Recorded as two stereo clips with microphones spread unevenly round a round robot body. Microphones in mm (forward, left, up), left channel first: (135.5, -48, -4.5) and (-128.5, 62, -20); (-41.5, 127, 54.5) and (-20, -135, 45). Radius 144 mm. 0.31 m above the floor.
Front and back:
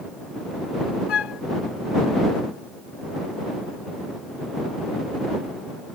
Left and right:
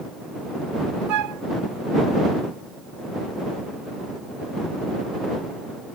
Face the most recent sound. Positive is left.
turn(degrees=-70)